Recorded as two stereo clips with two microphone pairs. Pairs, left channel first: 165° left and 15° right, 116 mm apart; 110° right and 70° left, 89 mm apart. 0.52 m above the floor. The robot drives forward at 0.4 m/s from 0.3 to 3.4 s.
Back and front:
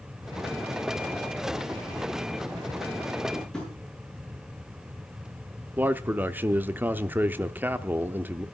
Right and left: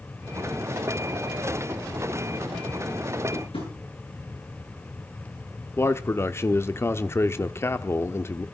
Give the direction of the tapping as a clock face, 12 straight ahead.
4 o'clock.